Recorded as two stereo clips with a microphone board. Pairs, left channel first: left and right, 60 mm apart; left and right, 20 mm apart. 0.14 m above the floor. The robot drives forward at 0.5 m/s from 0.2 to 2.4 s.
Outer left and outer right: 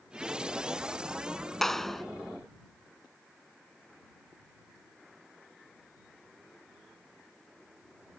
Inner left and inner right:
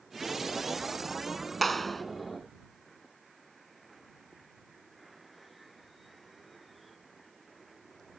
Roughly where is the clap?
Centre.